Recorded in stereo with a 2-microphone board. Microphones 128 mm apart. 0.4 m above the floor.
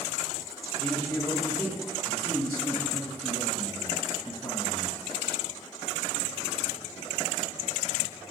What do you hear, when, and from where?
0.8 s a man speaking: 5° left (ahead or behind), 2 m